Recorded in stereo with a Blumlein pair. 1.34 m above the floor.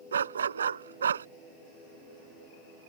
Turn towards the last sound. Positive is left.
turn(degrees=-70)